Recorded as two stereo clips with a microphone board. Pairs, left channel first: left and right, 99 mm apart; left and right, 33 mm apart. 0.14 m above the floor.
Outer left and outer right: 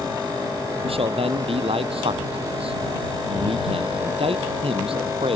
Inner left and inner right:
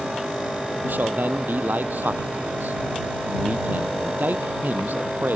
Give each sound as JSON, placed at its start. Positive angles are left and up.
{"t": 0.8, "sound": "a man speaking", "side_deg": -65}